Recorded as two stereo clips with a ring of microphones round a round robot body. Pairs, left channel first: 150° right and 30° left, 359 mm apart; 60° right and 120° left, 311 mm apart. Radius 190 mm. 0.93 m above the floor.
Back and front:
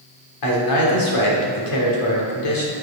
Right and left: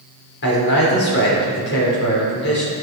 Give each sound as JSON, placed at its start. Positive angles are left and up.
{"t": 0.4, "sound": "a man speaking", "azimuth_deg": -120, "distance_m": 3.5}